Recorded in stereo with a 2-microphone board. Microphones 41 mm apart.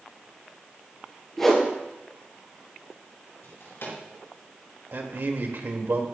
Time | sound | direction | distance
1.4 | a whoosh | 10° left (ahead or behind) | 4 m
3.4 | a drawer | 75° left (ahead or behind) | 5.5 m
4.9 | a man speaking | 65° right (ahead or behind) | 2 m